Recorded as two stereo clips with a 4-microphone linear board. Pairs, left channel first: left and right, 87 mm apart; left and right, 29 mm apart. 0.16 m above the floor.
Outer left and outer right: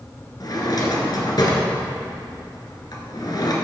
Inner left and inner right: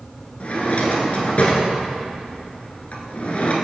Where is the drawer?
50° left (ahead or behind), 1.4 m.